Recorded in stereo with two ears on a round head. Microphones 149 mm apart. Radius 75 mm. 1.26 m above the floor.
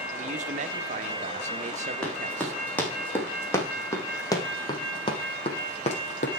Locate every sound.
0.2 s a man speaking: 45° right (ahead or behind), 1.1 m
2.0 s running footsteps: 5° left (ahead or behind), 5.5 m; by 6.3 s 50° left (ahead or behind), 3 m